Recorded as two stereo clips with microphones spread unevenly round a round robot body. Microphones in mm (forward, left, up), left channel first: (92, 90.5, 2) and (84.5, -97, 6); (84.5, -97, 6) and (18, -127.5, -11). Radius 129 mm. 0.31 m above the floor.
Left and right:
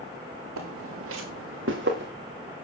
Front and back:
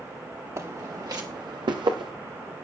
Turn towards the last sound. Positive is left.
turn(degrees=-150)